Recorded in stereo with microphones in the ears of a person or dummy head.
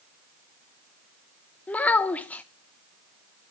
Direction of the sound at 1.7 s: 10° left (ahead or behind).